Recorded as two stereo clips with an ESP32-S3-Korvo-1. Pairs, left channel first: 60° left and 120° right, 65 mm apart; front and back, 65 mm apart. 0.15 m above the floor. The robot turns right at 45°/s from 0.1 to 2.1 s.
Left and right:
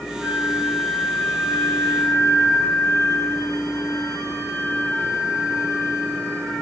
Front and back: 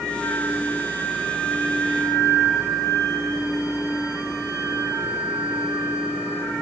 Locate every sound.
0.2 s a flute: 60° right, 3 m; by 6.5 s 25° left, 3 m